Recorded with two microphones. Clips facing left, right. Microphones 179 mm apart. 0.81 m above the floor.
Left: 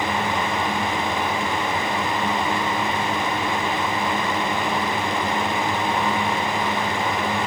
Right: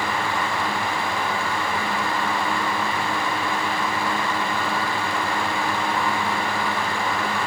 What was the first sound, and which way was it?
Only background noise.